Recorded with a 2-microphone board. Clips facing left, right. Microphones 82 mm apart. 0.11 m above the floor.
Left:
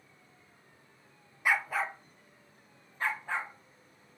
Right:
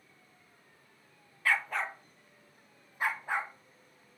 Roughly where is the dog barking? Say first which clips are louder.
Left 1 dB; centre.